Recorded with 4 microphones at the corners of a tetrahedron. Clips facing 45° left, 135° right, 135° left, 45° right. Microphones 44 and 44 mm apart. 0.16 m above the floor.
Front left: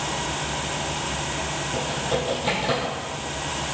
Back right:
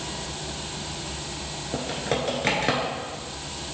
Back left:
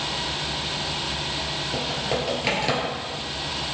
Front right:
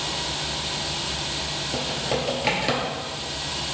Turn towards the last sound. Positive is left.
turn(degrees=-135)